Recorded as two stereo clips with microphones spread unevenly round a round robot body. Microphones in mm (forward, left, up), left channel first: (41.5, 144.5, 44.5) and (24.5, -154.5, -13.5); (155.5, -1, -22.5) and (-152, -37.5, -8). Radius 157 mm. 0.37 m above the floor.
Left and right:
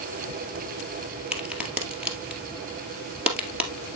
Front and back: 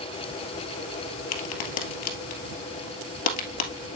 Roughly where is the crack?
Ahead.